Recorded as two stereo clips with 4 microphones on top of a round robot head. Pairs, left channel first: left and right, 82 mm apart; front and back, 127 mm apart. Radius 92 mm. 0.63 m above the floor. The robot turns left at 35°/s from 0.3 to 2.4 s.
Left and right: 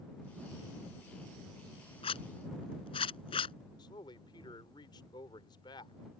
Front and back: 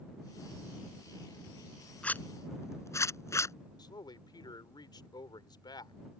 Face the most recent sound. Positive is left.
turn(degrees=55)